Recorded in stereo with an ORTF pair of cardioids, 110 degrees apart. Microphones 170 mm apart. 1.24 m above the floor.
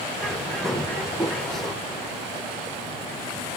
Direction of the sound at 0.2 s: Straight ahead.